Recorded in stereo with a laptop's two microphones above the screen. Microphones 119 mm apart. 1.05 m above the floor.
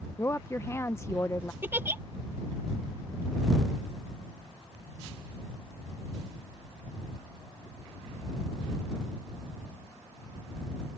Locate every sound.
0.2 s a woman speaking: 20° left (ahead or behind)
1.6 s a giggle: 20° right (ahead or behind)